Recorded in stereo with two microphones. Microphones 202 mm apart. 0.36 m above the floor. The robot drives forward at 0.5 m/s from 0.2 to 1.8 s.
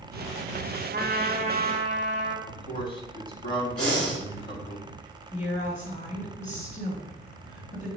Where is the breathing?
5° left (ahead or behind), 2.5 m.